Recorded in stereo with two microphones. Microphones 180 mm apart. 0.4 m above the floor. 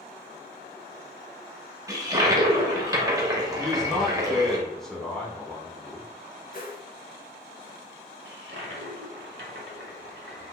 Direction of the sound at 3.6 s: 5° left (ahead or behind).